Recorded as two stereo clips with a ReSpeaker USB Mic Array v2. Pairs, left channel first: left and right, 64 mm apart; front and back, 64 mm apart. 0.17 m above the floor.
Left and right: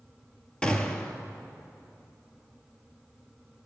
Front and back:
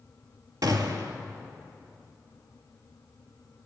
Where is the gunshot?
165° left, 0.7 m.